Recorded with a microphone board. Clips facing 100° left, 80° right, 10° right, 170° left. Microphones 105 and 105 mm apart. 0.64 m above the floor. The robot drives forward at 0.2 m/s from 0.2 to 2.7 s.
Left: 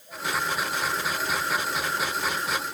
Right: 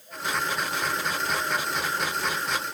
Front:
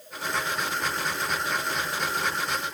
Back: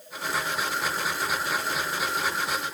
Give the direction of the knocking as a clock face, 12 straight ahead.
I don't hear knocking.